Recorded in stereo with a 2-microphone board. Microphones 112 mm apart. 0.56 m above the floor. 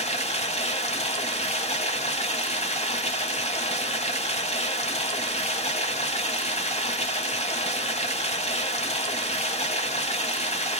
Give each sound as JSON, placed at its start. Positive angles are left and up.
{"t": 0.0, "sound": "running water", "side_deg": 75, "distance_m": 1.0}